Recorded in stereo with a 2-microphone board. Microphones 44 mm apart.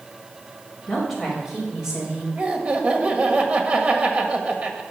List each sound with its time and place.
0.9 s a woman speaking: 5° right (ahead or behind), 5.5 m; by 2.3 s 20° right (ahead or behind), 5.5 m
2.4 s laughter: 35° right (ahead or behind), 1.6 m